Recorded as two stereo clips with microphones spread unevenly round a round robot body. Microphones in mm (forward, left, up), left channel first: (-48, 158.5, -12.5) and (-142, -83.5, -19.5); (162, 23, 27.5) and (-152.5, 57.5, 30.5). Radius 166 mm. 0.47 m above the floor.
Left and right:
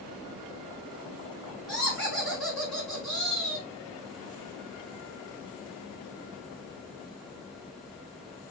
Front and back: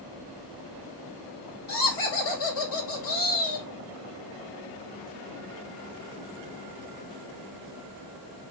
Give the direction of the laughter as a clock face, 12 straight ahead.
1 o'clock.